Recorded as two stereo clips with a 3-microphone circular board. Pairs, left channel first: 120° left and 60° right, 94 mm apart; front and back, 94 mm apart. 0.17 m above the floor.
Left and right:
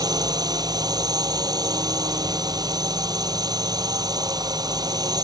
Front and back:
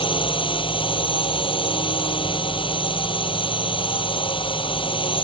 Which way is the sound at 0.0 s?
15° right.